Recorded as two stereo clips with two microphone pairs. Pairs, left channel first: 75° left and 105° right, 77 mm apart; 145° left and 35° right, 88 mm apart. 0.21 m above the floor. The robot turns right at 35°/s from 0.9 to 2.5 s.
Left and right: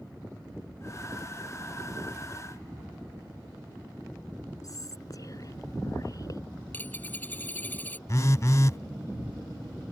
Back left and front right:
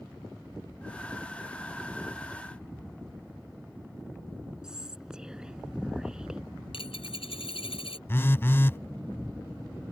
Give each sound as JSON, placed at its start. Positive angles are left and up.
{"t": 4.6, "sound": "whispering", "azimuth_deg": 45}
{"t": 6.7, "sound": "a dropped coin", "azimuth_deg": 145}
{"t": 8.1, "sound": "a phone buzzing", "azimuth_deg": 95}